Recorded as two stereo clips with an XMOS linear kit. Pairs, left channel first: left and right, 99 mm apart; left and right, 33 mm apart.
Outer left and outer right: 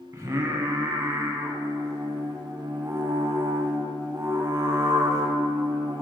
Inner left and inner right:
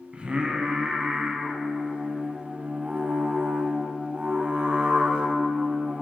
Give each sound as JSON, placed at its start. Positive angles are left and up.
{"t": 0.1, "sound": "singing", "side_deg": -35, "distance_m": 1.0}